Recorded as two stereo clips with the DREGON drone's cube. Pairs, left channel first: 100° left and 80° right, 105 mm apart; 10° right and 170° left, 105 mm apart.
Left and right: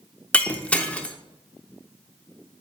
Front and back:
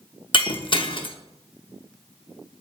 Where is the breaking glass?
20° left, 0.6 m.